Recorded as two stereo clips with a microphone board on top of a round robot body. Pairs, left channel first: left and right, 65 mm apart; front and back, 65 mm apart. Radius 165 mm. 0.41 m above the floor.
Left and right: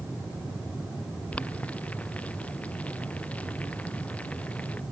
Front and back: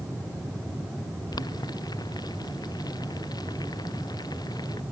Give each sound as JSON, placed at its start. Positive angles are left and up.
{"t": 1.3, "sound": "boiling", "azimuth_deg": 20}